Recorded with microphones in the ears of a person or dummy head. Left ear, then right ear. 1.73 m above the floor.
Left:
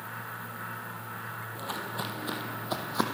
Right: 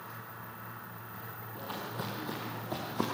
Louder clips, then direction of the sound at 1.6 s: Left 3 dB; 25° left (ahead or behind).